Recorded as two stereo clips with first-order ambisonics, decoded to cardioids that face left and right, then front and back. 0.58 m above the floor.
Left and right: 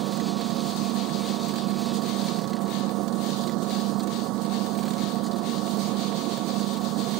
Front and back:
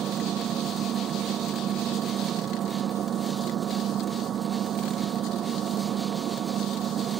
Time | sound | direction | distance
0.0 | an engine running | 125° right | ?